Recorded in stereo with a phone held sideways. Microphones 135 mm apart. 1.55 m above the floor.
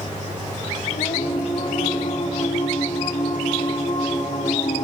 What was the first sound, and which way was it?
Singing, 65° left (ahead or behind).